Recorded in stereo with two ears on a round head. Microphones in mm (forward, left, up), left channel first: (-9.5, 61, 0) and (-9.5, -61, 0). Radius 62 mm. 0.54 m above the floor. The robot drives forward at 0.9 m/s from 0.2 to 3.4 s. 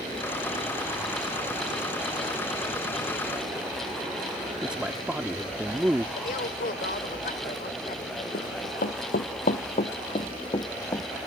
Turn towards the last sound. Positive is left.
turn(degrees=25)  # may be behind; listen again after turning